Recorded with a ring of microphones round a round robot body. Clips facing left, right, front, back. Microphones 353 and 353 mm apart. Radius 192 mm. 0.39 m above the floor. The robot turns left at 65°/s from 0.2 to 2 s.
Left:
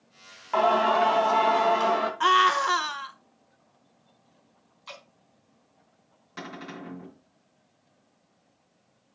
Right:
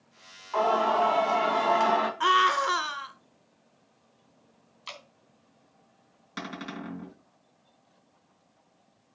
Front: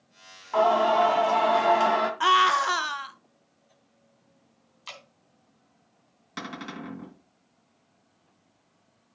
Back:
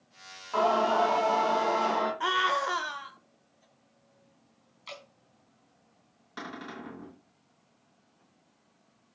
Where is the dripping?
55° right, 3.5 m.